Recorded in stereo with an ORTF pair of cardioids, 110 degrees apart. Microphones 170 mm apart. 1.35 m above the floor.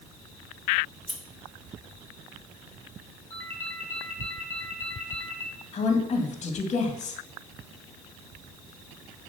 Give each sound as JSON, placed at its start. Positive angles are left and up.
{"t": 0.9, "sound": "scissors", "azimuth_deg": -5, "distance_m": 2.5}
{"t": 3.3, "sound": "a ringtone", "azimuth_deg": 10, "distance_m": 4.5}
{"t": 5.7, "sound": "a woman speaking", "azimuth_deg": 45, "distance_m": 2.0}